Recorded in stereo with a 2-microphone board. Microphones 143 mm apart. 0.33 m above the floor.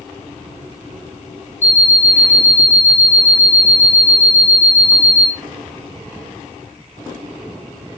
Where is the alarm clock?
15° right (ahead or behind), 0.5 m.